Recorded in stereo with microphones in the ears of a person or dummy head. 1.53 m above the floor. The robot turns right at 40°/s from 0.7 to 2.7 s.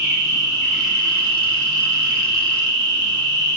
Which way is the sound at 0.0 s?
70° right.